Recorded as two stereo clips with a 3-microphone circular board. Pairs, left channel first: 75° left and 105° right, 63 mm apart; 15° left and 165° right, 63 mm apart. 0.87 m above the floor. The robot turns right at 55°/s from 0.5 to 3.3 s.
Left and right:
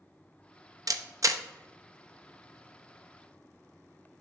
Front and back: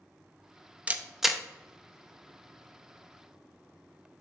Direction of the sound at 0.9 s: 100° right.